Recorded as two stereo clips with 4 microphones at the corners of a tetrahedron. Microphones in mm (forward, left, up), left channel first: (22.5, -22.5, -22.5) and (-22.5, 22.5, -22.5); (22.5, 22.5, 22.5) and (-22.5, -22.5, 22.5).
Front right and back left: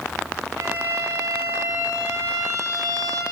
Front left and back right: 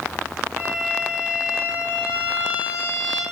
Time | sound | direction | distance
0.6 | a violin | 160° left | 3 m